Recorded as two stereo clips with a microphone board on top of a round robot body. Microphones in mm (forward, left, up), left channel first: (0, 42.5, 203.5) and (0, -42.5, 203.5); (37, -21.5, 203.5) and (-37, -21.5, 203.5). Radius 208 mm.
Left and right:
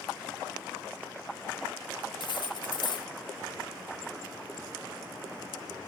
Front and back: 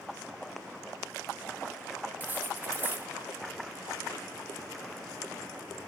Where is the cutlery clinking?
115° left, 0.8 m.